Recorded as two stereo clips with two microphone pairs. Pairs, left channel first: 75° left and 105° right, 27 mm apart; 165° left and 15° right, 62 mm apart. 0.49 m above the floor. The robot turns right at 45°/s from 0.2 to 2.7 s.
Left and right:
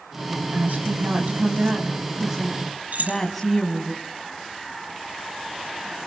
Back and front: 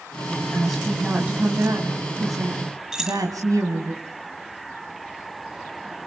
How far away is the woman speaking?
About 4 m.